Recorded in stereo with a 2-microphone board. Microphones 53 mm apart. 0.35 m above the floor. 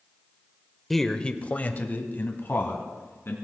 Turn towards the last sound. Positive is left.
turn(degrees=45)  # may be behind; listen again after turning